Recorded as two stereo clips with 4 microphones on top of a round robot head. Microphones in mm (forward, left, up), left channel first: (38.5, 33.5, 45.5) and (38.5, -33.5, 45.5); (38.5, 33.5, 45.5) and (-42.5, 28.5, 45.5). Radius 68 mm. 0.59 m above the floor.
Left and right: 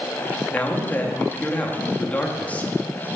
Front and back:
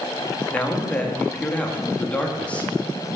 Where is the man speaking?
55° left, 1.0 m.